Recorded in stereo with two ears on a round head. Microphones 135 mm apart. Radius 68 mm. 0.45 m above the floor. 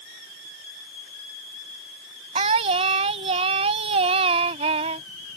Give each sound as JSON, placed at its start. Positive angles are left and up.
{"t": 2.4, "sound": "singing", "side_deg": -40}